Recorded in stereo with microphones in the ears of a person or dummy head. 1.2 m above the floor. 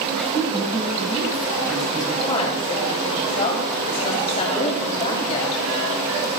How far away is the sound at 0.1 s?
About 6 m.